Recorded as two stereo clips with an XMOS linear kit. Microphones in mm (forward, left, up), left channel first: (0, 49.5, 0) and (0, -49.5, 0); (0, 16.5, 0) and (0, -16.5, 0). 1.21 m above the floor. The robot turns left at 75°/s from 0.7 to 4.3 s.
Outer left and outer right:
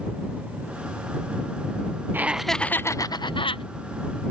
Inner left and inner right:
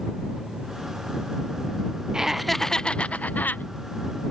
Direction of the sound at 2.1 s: 155° right.